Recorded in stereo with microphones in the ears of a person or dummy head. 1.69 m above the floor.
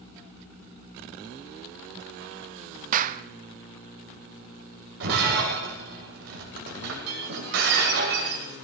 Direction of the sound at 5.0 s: 60° right (ahead or behind).